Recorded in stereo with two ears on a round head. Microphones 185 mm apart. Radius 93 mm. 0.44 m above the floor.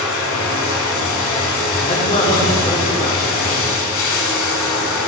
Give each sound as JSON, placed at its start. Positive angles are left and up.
{"t": 0.0, "sound": "running water", "side_deg": 70, "distance_m": 0.9}
{"t": 1.8, "sound": "a man speaking", "side_deg": 30, "distance_m": 1.1}